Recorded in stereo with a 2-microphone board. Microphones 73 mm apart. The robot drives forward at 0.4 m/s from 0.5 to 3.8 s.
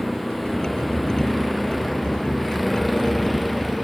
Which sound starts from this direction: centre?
A vehicle, at 0.0 s.